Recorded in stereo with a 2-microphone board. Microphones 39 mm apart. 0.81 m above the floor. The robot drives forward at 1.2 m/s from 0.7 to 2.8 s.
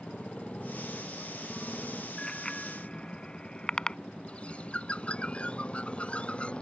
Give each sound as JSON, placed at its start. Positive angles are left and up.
{"t": 0.0, "sound": "a motorcycle", "side_deg": 30}
{"t": 2.2, "sound": "a bicycle bell", "side_deg": 20}
{"t": 4.3, "sound": "a bird", "side_deg": 35}